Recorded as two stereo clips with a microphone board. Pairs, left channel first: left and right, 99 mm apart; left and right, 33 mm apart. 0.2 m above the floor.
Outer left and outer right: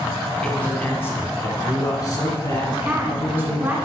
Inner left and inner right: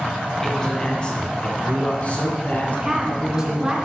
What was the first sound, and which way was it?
A man speaking, 15° left (ahead or behind).